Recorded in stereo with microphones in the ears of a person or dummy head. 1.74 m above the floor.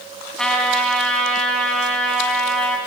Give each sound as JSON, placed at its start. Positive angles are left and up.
{"t": 0.4, "sound": "a trumpet", "side_deg": 5, "distance_m": 2.5}